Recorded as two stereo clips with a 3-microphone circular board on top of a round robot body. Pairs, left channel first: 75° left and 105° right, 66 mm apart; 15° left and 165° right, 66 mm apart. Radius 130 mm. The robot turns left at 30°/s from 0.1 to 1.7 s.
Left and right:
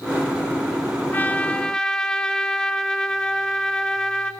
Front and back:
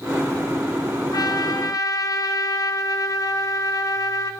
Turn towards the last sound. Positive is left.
turn(degrees=0)